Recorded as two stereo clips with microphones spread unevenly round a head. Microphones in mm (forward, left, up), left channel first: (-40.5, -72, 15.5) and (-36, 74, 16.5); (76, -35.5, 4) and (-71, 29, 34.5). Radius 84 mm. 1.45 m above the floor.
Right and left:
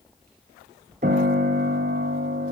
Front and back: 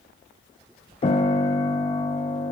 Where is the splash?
No splash in this recording.